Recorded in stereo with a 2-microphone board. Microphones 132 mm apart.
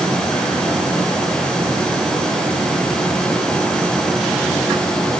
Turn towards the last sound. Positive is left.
No sound to turn to.